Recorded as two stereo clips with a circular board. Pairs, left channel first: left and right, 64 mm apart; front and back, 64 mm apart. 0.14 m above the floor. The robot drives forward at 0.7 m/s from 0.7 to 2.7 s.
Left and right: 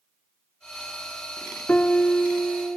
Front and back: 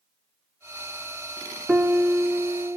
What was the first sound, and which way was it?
A piano, 135° left.